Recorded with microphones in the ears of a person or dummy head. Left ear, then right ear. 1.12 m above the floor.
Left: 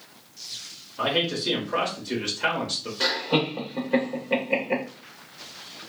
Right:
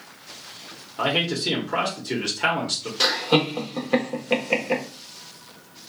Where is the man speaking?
20° right (ahead or behind), 0.8 m.